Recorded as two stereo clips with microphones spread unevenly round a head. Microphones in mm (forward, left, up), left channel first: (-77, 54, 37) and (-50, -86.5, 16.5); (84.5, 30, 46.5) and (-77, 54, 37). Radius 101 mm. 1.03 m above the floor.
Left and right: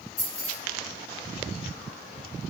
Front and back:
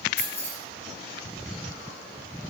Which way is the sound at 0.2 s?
40° left.